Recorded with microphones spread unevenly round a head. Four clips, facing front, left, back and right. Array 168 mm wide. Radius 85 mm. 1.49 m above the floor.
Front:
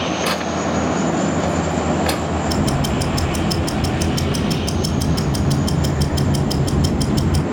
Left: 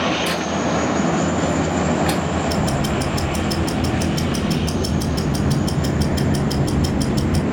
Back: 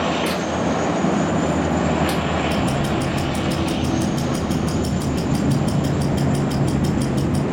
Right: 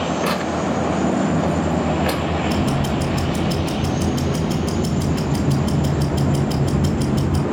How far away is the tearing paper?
About 1.3 m.